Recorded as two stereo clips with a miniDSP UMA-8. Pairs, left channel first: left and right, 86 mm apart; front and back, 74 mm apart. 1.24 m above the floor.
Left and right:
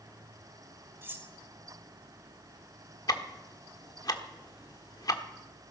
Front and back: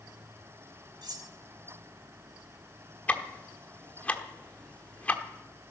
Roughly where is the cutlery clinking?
Behind right.